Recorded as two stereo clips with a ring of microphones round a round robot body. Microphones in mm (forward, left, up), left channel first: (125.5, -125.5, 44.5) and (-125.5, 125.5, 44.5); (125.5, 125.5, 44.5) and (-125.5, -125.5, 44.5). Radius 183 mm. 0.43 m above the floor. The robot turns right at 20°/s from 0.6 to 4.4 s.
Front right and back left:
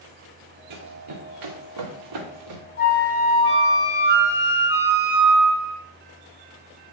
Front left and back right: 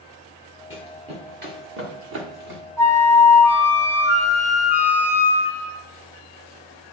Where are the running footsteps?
140° left, 1.8 m; by 2.6 s 170° right, 3 m.